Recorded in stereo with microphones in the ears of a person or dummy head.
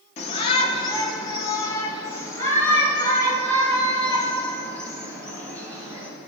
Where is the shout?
35° left (ahead or behind), 1.3 m; by 6.1 s 5° left (ahead or behind), 5 m.